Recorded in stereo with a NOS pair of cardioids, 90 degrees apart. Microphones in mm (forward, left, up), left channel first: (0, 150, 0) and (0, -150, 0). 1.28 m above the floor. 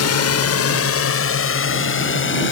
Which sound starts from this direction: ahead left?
A drone, at 0.0 s.